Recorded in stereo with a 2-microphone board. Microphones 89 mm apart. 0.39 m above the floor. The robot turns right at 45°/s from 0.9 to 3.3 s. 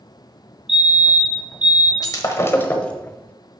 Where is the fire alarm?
5° right (ahead or behind), 1.9 m; by 1.9 s 15° right (ahead or behind), 1.9 m.